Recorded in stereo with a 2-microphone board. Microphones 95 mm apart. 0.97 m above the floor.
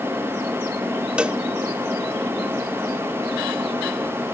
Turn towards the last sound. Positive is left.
turn(degrees=-10)  # may be behind; listen again after turning